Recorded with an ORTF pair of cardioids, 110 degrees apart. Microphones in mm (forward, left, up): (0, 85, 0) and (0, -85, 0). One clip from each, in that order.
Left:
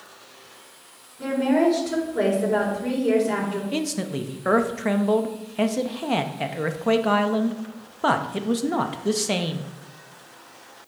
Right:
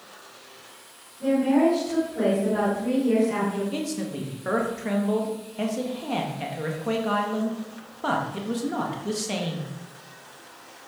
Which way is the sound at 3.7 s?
35° left.